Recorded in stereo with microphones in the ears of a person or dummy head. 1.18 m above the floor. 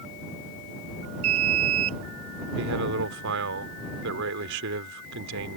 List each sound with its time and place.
1.2 s an alarm: 85° right
2.6 s a man speaking: 65° right (ahead or behind)